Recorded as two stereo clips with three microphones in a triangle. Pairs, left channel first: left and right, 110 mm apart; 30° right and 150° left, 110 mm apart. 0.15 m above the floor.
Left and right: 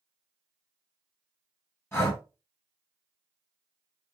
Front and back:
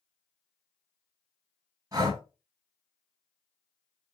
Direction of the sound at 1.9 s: 140° left.